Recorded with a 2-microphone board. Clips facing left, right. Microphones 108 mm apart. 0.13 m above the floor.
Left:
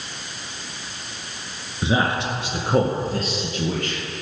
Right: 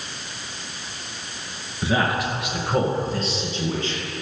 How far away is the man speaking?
About 1.6 m.